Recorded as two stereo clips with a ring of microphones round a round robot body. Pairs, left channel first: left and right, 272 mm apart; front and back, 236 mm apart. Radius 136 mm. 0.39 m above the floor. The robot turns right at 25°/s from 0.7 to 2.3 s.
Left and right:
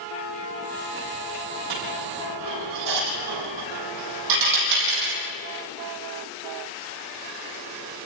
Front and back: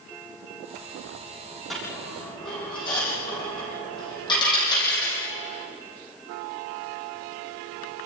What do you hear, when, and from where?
1.7 s a dropped coin: 90° right, 6.5 m; by 5.2 s 75° right, 6.5 m